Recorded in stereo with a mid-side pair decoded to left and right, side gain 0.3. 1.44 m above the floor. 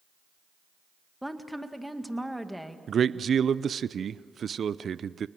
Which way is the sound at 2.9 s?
65° right.